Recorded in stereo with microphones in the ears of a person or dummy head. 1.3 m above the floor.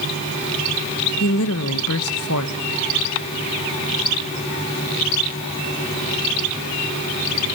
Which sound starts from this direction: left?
A woman speaking, at 1.2 s.